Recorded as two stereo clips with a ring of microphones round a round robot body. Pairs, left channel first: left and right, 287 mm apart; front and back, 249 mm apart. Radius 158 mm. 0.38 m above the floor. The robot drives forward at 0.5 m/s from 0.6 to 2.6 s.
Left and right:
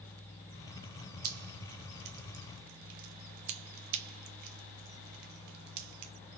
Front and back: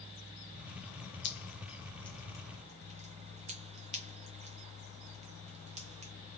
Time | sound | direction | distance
1.2 | dripping | 50° right | 0.7 m